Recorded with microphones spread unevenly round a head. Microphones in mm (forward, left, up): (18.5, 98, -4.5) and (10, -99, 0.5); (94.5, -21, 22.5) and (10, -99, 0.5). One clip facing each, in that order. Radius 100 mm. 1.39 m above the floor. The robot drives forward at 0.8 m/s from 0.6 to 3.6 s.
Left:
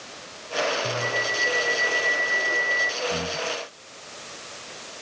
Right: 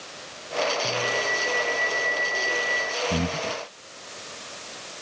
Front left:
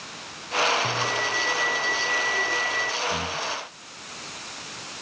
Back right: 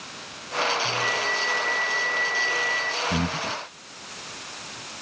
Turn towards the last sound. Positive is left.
turn(degrees=-125)